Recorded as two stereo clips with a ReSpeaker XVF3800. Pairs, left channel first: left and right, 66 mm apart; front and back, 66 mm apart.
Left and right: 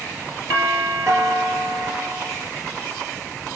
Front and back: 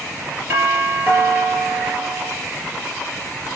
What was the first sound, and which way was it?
A doorbell, 125° right.